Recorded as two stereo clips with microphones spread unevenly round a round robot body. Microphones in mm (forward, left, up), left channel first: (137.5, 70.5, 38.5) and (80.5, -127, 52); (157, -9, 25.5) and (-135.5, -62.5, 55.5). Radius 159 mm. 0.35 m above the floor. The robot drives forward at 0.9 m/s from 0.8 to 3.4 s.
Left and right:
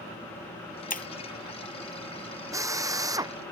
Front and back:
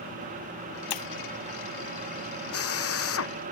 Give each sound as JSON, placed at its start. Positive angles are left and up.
{"t": 0.9, "sound": "breaking glass", "azimuth_deg": 25}
{"t": 2.5, "sound": "a drill", "azimuth_deg": -30}